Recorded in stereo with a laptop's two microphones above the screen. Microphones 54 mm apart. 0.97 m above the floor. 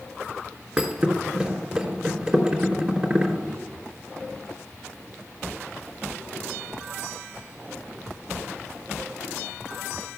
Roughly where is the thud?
Centre.